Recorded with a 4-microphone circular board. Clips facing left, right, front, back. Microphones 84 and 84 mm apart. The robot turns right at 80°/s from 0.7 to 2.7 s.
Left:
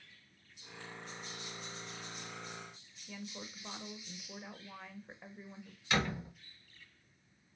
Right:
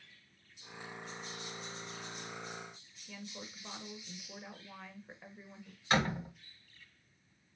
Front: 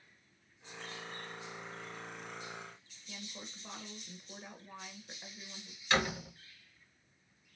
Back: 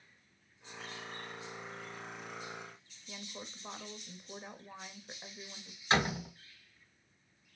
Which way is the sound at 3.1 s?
160° left.